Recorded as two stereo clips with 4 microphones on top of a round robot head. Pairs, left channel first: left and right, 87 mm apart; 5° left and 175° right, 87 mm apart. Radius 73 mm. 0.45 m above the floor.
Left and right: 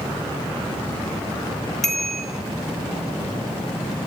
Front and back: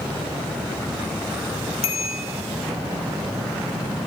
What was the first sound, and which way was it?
A bicycle bell, 5° left.